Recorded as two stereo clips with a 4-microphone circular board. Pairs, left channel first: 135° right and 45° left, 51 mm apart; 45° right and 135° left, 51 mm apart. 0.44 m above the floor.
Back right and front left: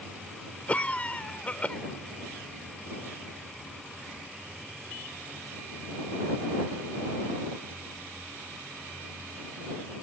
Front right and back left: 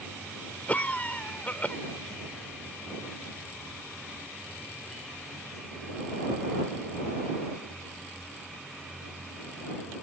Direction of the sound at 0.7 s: 90° right.